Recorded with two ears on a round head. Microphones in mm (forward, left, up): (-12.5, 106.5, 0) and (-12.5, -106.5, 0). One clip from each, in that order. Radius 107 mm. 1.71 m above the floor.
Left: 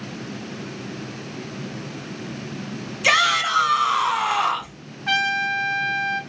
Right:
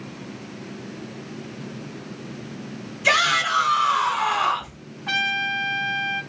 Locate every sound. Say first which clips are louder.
3.0 s a shout: left 1 dB; 80° left, 1.6 m
5.1 s a trumpet: left 2 dB; 30° left (ahead or behind), 1.2 m